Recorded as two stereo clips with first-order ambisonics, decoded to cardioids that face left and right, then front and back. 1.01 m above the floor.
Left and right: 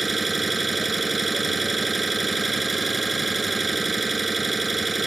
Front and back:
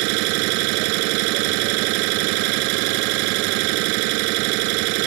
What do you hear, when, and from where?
0.0 s an engine running: 170° right